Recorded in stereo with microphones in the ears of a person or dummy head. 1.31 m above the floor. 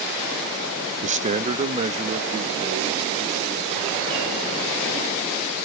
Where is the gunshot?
No gunshot in this recording.